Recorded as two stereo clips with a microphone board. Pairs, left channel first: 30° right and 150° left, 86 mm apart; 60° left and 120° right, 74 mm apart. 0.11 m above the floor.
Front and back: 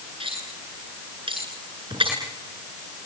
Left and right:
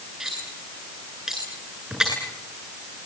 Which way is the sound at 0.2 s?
155° left.